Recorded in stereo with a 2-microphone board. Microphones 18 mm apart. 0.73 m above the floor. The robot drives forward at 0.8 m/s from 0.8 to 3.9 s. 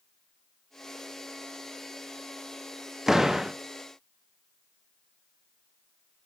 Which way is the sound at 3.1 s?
25° right (ahead or behind).